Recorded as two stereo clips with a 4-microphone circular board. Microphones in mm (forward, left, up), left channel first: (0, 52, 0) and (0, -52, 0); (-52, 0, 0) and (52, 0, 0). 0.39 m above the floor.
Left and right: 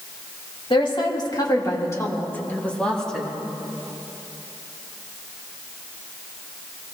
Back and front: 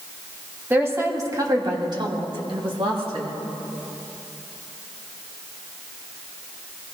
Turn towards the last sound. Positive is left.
turn(degrees=0)